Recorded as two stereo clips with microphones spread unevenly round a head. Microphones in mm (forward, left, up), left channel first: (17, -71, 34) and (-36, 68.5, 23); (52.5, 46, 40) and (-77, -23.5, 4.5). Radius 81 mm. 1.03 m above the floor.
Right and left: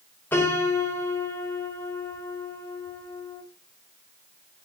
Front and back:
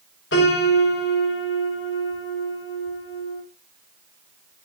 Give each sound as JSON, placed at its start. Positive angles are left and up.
{"t": 0.3, "sound": "a piano", "azimuth_deg": 10, "distance_m": 5.0}